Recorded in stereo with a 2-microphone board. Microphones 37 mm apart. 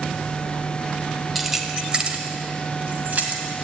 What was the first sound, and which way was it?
Keys jangling, 10° right (ahead or behind).